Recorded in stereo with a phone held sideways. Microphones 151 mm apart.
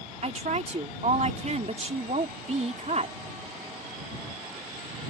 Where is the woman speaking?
50° right (ahead or behind).